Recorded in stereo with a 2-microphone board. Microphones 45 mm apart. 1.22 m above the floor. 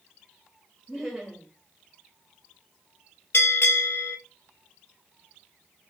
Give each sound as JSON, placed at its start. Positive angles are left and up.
{"t": 0.9, "sound": "laughter", "side_deg": 0, "distance_m": 1.7}
{"t": 3.3, "sound": "a bell", "side_deg": 65, "distance_m": 1.7}